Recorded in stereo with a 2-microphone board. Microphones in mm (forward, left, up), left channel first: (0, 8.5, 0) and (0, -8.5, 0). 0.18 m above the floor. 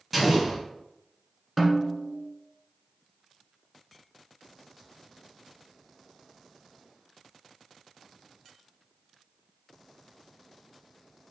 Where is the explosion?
Centre (ahead or behind), 1.7 m.